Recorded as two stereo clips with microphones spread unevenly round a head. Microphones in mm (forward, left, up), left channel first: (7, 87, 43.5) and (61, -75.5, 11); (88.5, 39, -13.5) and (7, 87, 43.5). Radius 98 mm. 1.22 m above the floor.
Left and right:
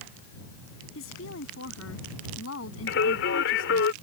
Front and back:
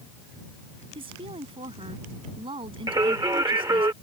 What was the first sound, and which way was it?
A woman speaking, 130° left.